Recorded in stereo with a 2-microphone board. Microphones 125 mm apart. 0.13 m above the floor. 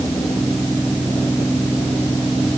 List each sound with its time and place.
Only background noise.